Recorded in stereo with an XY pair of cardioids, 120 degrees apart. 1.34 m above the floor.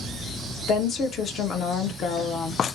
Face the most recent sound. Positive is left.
turn(degrees=60)